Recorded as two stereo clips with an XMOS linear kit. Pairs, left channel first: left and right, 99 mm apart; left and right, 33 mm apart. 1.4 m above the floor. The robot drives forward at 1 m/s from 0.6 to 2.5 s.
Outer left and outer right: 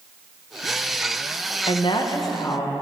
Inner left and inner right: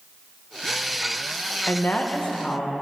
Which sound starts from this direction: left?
A woman speaking, at 1.7 s.